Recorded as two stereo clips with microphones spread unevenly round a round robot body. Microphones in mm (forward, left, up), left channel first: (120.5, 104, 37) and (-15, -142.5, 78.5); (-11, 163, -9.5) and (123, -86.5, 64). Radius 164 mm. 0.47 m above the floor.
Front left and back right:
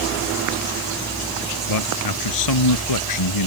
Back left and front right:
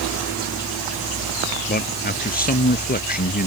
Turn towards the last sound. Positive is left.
turn(degrees=60)